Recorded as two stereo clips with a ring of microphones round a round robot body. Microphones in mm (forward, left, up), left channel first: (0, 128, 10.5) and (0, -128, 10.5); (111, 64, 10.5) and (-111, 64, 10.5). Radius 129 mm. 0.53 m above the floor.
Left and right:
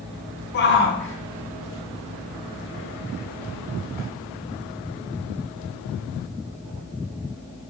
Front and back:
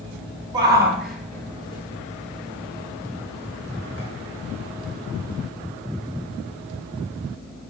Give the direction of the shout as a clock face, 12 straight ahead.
8 o'clock.